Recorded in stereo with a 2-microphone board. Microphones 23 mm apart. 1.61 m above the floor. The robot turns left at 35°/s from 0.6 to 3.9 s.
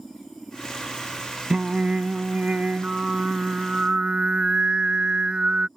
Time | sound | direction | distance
1.5 | singing | 40° right | ?